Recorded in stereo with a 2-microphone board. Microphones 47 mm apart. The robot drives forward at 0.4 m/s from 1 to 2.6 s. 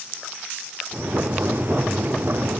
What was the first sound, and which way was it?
Only background noise.